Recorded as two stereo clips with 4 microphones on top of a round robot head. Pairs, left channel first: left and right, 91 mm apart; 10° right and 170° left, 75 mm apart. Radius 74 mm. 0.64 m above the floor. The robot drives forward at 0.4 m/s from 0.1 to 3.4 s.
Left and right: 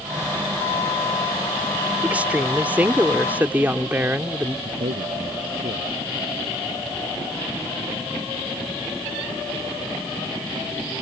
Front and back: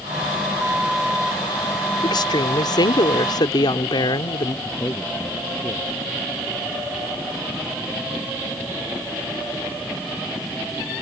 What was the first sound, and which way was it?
A woman speaking, 15° right.